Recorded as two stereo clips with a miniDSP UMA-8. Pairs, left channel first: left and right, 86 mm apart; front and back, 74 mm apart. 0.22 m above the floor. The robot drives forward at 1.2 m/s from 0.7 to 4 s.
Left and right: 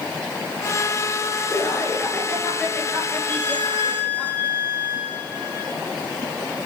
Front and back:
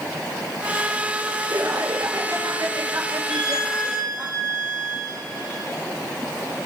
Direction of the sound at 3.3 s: 150° left.